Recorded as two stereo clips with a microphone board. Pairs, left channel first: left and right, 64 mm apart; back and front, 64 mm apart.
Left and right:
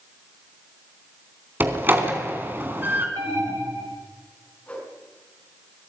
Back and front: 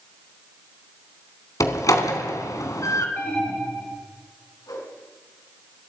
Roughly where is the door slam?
Behind right.